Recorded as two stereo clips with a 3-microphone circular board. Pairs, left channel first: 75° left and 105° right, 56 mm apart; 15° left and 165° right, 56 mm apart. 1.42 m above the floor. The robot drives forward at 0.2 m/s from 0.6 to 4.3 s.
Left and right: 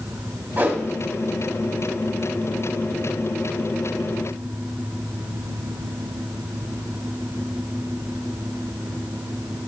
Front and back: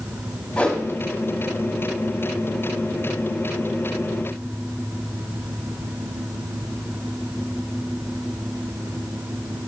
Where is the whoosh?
55° right, 2 m.